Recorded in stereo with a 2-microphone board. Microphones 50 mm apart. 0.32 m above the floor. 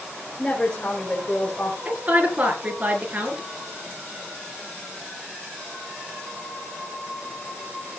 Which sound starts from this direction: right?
A woman speaking, at 1.9 s.